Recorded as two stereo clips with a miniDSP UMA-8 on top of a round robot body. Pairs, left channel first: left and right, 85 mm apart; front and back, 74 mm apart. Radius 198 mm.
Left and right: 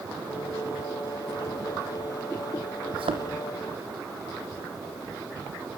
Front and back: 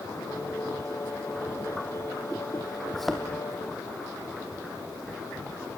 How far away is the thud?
About 3 m.